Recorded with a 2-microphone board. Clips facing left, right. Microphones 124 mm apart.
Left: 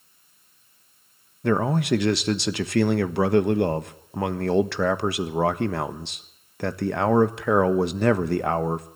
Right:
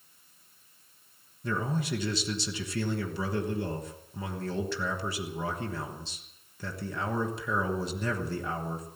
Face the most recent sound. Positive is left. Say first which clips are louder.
# left 10 dB
turn(degrees=70)  # may be behind; listen again after turning